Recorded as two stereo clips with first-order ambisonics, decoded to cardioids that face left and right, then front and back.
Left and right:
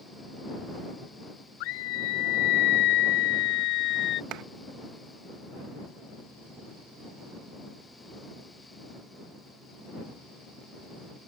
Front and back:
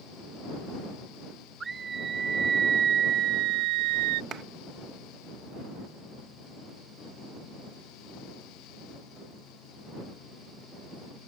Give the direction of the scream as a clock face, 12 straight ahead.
8 o'clock.